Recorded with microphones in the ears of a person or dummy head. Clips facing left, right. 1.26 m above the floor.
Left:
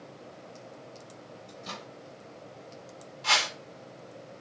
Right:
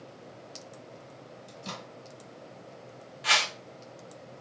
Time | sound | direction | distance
1.5 | a microwave | 60° right (ahead or behind) | 1.9 m
3.2 | a whoosh | 25° right (ahead or behind) | 0.7 m